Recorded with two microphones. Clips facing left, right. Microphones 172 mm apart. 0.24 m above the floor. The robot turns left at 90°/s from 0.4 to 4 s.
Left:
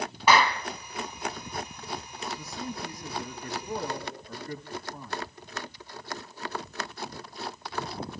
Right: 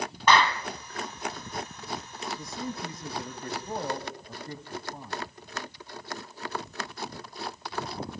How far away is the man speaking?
About 1.8 m.